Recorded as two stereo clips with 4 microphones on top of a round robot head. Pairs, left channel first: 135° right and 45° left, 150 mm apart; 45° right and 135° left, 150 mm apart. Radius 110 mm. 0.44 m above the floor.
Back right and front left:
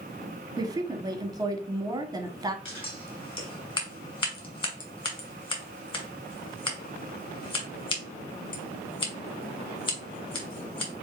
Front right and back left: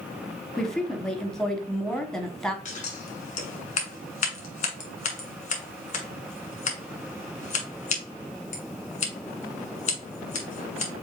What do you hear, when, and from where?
0.6 s a woman speaking: 35° left, 1.3 m
2.6 s scissors: 80° right, 2.5 m